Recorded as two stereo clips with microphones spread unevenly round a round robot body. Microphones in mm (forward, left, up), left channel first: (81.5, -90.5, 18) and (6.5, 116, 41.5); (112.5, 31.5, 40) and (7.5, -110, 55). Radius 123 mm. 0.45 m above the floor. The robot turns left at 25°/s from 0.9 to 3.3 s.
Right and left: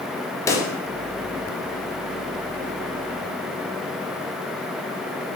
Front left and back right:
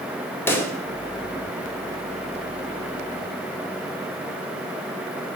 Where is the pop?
10° right, 0.8 m.